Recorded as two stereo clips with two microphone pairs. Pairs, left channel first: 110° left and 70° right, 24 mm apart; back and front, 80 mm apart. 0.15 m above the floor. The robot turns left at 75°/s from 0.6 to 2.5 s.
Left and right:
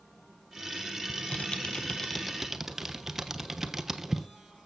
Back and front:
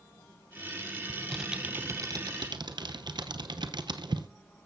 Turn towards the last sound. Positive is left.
turn(degrees=5)